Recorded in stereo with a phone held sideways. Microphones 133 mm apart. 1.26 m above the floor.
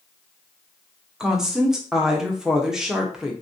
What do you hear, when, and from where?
1.2 s a woman speaking: 5° right (ahead or behind), 0.8 m